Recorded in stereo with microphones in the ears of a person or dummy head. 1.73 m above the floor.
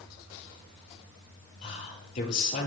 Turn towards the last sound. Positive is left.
turn(degrees=45)  # may be behind; listen again after turning